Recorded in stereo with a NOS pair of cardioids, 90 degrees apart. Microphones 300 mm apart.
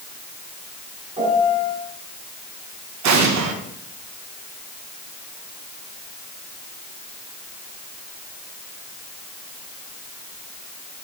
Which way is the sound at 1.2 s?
20° right.